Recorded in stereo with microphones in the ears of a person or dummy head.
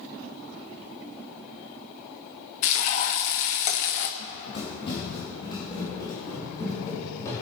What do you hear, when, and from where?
2.6 s frying: 50° left (ahead or behind), 0.8 m
4.2 s running footsteps: 35° left (ahead or behind), 4 m; by 7.4 s 15° left (ahead or behind), 4.5 m